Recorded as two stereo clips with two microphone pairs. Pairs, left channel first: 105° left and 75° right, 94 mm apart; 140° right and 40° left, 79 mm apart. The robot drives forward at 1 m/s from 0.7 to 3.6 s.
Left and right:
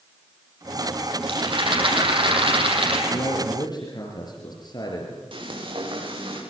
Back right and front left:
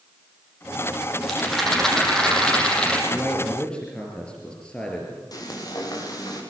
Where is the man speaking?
140° left, 4 m; by 5.2 s 145° left, 4.5 m.